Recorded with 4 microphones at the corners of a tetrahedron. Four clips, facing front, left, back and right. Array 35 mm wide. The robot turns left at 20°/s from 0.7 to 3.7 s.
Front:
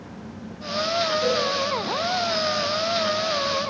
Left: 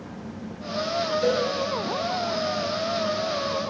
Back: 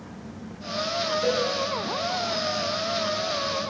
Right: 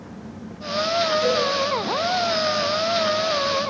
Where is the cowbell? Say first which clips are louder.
Right 2 dB, back 1 dB; 55° right, 6.5 m; by 1.4 s 60° right, 6.5 m.